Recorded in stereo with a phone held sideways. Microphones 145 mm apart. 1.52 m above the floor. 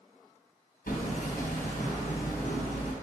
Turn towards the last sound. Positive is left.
turn(degrees=75)  # may be behind; listen again after turning